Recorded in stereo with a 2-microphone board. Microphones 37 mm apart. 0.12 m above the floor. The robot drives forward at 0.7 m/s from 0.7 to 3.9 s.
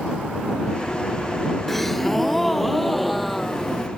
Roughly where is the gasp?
Centre.